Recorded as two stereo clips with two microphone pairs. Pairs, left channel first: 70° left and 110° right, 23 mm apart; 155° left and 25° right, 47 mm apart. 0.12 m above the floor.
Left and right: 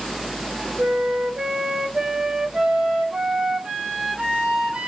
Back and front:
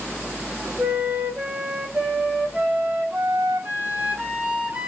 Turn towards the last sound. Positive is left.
turn(degrees=-90)